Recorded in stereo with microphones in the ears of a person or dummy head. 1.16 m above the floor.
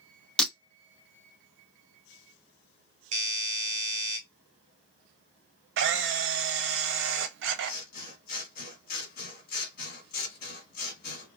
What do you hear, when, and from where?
0.4 s breaking glass: 5° left (ahead or behind), 0.7 m
3.1 s a doorbell: 40° right (ahead or behind), 1.3 m
5.8 s a camera shutter: 65° right (ahead or behind), 0.7 m
7.6 s scissors: 60° left (ahead or behind), 2.0 m